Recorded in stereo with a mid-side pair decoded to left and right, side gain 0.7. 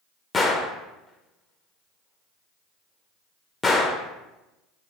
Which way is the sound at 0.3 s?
20° left.